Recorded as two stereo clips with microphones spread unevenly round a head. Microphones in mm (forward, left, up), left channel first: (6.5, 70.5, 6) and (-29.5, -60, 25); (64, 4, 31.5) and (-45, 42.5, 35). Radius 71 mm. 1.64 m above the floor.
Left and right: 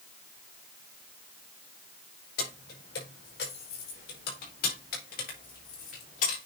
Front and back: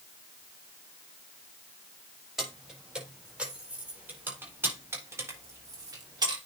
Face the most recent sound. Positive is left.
turn(degrees=105)